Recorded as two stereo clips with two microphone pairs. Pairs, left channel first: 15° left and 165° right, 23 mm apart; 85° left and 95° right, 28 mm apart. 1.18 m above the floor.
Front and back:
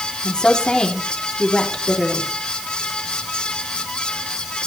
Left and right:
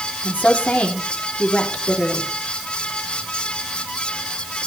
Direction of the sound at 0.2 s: 65° left.